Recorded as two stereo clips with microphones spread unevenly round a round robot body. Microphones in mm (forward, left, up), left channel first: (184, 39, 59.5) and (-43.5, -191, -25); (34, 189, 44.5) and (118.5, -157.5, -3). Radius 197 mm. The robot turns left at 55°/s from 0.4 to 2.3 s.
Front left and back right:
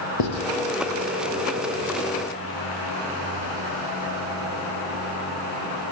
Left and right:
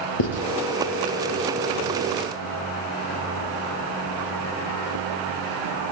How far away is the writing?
About 5.5 m.